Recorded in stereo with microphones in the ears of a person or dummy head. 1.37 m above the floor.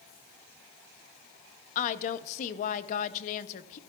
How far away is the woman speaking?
About 0.6 m.